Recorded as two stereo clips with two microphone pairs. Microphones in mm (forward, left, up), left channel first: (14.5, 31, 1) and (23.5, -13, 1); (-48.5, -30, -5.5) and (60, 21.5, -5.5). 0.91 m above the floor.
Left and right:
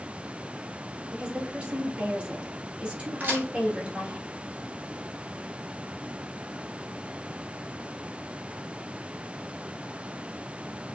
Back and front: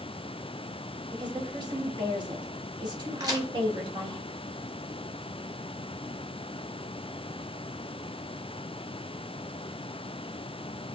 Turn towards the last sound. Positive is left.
turn(degrees=-30)